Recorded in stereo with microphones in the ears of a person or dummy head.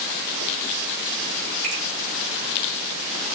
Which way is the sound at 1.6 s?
40° right (ahead or behind).